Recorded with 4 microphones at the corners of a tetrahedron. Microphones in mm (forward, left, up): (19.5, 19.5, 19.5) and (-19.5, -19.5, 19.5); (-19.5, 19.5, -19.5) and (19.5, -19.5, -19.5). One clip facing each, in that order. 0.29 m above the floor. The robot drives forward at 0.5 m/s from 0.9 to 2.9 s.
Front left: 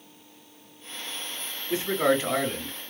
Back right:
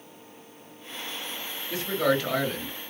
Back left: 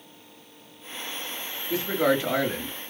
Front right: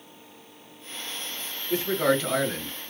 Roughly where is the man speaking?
Left.